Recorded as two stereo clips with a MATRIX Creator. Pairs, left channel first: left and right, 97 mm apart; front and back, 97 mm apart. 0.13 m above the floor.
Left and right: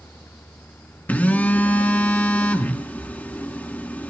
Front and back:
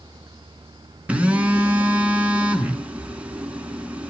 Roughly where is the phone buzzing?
Behind left.